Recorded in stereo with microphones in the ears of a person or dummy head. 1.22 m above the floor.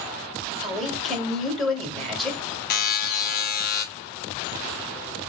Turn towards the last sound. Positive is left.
turn(degrees=50)  # may be behind; listen again after turning